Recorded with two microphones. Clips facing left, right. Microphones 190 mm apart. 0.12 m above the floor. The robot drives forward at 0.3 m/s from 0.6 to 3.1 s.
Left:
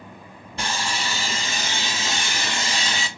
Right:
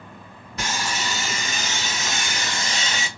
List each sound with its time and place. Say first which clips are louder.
0.6 s sawing: even; 30° left (ahead or behind), 2.0 m